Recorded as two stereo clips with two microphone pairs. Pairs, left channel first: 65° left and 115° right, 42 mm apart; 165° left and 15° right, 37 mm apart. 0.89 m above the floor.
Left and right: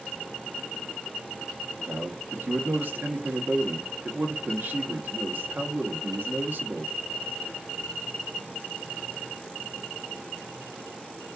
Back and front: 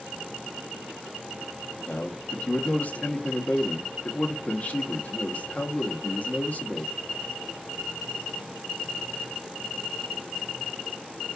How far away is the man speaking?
About 1.1 m.